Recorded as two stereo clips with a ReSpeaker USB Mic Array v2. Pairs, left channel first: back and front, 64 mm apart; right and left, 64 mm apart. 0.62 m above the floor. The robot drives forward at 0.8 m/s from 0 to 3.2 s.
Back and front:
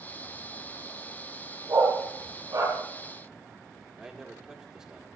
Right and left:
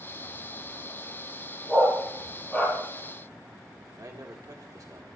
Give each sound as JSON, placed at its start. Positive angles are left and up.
{"t": 1.7, "sound": "a dog barking", "azimuth_deg": -20, "distance_m": 7.0}
{"t": 4.0, "sound": "a man speaking", "azimuth_deg": 75, "distance_m": 1.8}